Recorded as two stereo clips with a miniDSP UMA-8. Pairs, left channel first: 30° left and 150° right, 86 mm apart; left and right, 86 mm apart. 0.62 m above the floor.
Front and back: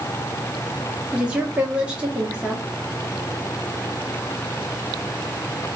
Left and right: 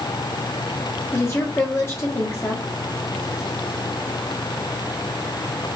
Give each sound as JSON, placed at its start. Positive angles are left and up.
{"t": 1.1, "sound": "a woman speaking", "azimuth_deg": 140, "distance_m": 1.1}